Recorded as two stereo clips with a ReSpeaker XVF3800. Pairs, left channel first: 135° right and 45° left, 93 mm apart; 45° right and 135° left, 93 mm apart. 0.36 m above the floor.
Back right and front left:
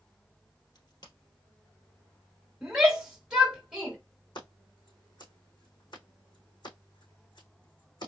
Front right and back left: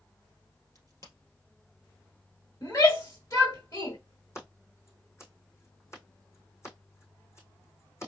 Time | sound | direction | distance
0.8 | a crack | 95° right | 2.5 m
2.6 | a shout | 30° right | 1.6 m
4.3 | scissors | 105° right | 3 m